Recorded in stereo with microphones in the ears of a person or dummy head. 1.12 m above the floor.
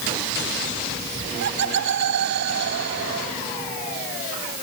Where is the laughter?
70° right (ahead or behind); by 3.3 s 60° right (ahead or behind).